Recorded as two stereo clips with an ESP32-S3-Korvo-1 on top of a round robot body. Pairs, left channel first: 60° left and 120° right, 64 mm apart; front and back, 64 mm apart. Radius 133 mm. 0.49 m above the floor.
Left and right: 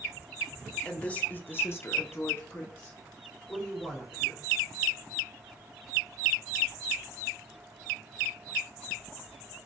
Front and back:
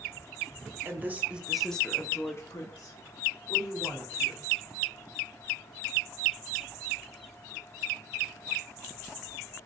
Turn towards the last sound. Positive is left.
turn(degrees=-10)